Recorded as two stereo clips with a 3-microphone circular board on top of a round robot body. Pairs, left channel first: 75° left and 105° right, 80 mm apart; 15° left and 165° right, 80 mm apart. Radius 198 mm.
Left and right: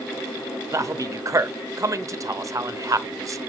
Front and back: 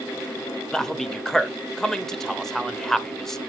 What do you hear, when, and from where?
0.7 s a man speaking: 70° right, 1.0 m